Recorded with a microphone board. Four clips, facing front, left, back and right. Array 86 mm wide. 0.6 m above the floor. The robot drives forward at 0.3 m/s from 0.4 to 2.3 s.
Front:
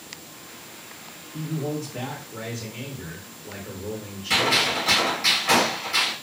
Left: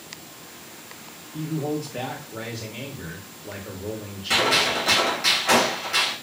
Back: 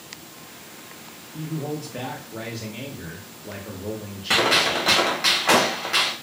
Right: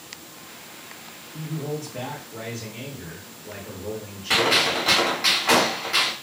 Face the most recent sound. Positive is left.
turn(degrees=-170)